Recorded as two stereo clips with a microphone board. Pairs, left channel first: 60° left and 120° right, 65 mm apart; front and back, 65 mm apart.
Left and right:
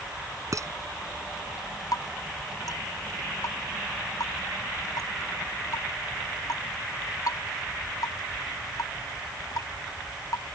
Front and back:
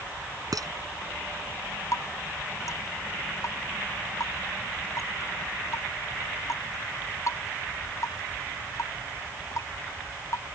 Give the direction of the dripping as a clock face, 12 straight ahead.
11 o'clock.